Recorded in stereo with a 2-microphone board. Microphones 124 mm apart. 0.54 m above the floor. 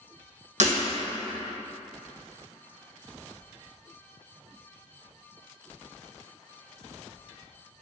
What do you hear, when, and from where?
0.6 s breaking glass: 75° right (ahead or behind), 1.8 m